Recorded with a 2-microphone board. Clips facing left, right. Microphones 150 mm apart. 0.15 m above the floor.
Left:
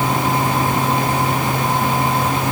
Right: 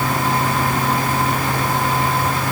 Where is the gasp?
I don't hear a gasp.